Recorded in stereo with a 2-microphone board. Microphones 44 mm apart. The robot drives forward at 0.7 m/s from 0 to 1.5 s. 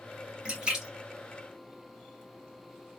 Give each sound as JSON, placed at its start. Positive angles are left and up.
{"t": 0.5, "sound": "a splash", "side_deg": -20, "distance_m": 1.2}